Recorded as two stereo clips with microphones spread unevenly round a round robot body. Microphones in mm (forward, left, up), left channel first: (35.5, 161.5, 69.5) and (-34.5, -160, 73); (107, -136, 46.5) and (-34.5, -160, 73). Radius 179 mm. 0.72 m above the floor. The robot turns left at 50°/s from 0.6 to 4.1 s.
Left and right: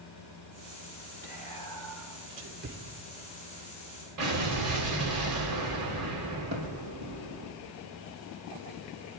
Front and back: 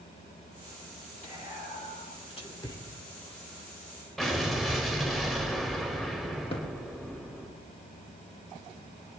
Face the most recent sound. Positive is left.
turn(degrees=-40)